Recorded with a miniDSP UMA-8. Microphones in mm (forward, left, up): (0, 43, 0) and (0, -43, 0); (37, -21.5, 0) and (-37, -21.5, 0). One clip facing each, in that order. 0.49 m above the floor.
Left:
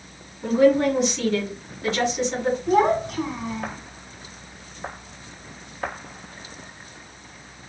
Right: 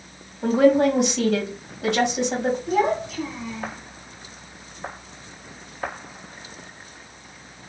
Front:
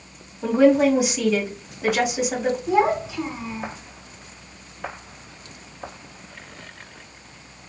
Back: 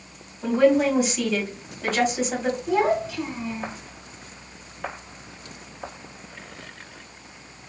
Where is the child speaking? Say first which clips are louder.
Left 5 dB, front 1 dB; 70° left, 1.5 m.